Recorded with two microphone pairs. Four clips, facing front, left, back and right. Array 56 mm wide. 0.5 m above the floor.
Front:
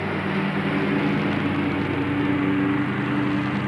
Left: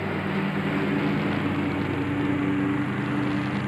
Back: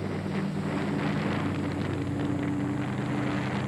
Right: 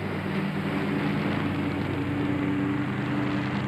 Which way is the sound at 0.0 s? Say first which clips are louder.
Left 3 dB, front 7 dB; 20° left.